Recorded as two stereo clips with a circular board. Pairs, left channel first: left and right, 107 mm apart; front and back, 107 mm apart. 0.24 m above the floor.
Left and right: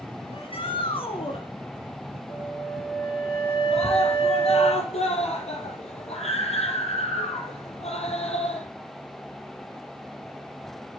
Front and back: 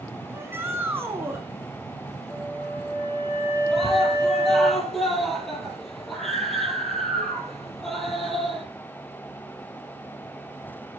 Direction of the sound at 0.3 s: 110° left.